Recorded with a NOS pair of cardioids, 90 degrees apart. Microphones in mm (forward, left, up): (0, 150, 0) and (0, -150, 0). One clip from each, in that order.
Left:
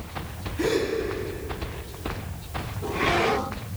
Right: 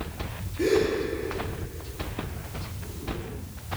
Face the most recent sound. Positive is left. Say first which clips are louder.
# right 2 dB
turn(degrees=55)